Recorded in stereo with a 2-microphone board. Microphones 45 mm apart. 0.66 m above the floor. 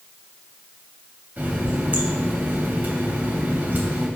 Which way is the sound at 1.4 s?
40° right (ahead or behind).